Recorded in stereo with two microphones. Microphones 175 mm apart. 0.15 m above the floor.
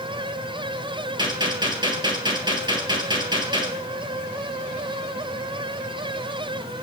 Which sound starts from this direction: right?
A gunshot, at 1.2 s.